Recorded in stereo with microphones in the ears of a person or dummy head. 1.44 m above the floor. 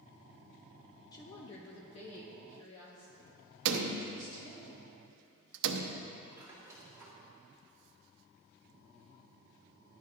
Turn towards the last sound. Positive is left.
turn(degrees=-15)  # may be behind; listen again after turning